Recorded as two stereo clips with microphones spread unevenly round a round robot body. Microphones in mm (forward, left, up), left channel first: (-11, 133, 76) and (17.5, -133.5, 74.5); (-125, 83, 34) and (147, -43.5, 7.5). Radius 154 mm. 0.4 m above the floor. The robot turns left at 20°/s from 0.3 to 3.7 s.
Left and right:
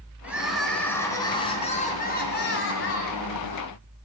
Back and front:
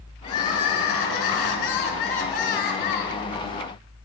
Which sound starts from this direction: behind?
Crying, at 0.2 s.